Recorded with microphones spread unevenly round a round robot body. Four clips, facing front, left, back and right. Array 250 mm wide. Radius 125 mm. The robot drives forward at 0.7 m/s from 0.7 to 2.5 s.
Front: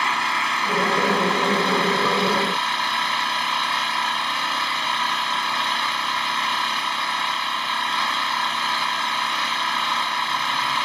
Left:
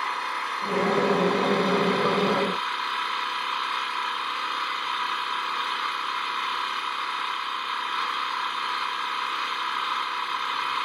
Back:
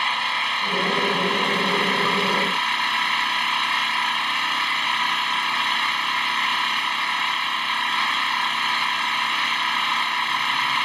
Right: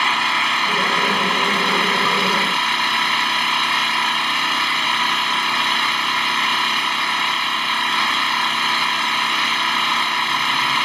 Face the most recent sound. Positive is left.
turn(degrees=-90)